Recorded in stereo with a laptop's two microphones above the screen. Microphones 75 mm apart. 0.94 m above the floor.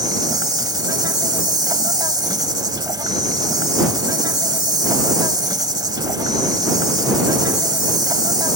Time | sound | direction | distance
0.0 | an insect | 65° right (ahead or behind) | ?